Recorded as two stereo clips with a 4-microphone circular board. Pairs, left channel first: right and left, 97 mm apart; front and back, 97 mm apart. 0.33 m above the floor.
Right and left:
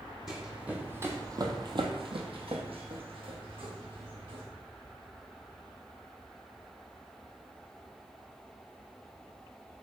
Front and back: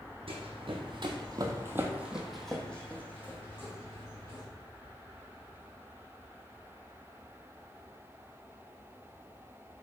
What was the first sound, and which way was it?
Running footsteps, 175° left.